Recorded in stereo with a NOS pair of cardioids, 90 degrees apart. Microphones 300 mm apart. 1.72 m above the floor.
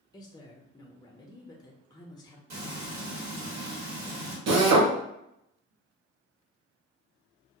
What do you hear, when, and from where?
0.1 s a woman speaking: 15° left, 0.5 m
2.5 s frying: 65° right, 1.1 m
4.5 s a drill: 60° right, 0.8 m